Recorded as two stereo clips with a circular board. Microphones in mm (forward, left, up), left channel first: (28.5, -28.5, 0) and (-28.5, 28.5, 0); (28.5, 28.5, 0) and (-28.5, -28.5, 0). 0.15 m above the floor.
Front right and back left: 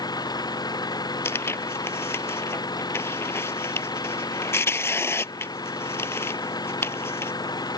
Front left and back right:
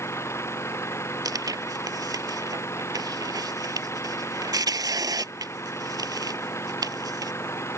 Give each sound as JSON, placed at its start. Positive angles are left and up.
{"t": 0.0, "sound": "an engine running", "azimuth_deg": -10}
{"t": 1.2, "sound": "tearing paper", "azimuth_deg": -100}